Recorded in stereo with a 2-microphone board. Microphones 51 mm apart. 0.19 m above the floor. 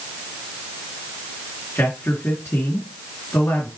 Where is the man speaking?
60° left (ahead or behind), 2.5 m.